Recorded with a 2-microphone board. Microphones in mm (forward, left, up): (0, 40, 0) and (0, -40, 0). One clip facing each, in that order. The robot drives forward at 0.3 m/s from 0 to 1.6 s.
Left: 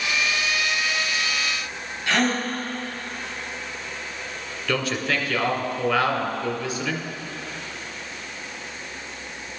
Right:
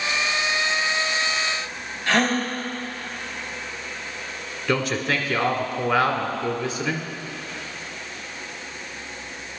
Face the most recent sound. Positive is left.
turn(degrees=-30)  # may be behind; listen again after turning